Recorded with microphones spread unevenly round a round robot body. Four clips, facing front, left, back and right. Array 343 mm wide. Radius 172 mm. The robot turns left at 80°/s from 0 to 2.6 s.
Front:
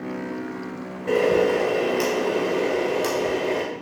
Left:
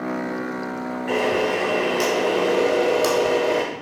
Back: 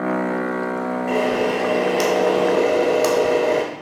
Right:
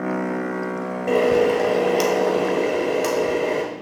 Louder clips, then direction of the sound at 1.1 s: Right 5 dB, front 3 dB; 60° right.